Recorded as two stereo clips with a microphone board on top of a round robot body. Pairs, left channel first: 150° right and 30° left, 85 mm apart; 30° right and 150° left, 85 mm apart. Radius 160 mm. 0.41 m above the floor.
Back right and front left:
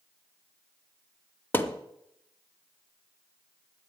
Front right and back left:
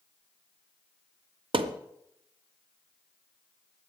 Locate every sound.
1.5 s a thud: 145° left, 0.9 m